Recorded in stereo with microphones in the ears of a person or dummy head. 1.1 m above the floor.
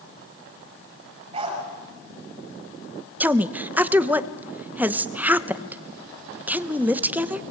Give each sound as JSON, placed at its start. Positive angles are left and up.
{"t": 1.3, "sound": "a dog barking", "side_deg": -30, "distance_m": 8.5}
{"t": 3.2, "sound": "a woman speaking", "side_deg": -5, "distance_m": 0.9}